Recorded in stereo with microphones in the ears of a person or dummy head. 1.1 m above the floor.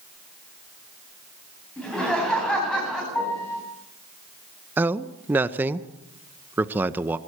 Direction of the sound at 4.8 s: 10° right (ahead or behind).